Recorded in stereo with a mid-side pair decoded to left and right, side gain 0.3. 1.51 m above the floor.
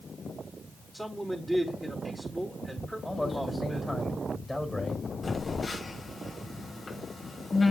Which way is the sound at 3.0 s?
15° left.